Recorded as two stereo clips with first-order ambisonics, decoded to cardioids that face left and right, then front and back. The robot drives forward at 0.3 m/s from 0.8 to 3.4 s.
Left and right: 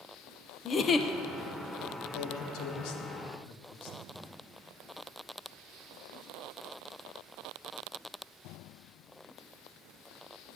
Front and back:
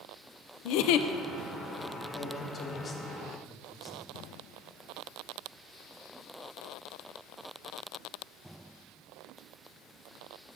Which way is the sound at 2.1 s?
60° left.